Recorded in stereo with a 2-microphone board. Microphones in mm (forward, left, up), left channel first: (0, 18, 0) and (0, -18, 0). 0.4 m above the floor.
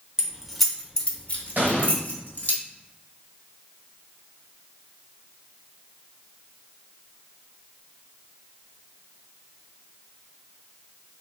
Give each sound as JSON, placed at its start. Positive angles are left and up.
{"t": 0.2, "sound": "keys jangling", "side_deg": -15, "distance_m": 0.7}
{"t": 1.6, "sound": "an explosion", "side_deg": -55, "distance_m": 1.3}